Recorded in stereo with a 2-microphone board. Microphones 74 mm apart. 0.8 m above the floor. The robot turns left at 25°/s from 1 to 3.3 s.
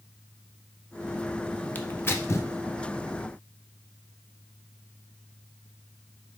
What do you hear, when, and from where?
1.8 s tearing paper: 25° left (ahead or behind), 0.5 m; by 2.5 s 40° left (ahead or behind), 0.5 m